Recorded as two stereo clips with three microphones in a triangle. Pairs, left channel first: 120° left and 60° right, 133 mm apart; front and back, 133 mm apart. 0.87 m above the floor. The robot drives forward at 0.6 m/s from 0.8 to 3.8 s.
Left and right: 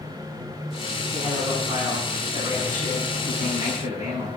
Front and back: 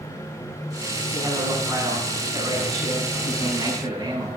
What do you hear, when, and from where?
1.1 s a man speaking: 110° right, 8 m; by 4.4 s 120° right, 9 m